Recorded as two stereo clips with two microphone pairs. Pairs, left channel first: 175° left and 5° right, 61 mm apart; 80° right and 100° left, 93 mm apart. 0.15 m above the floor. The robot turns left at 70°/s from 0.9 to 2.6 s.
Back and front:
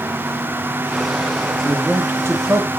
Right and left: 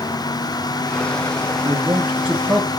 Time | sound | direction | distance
1.6 | a man speaking | 70° left | 2.5 m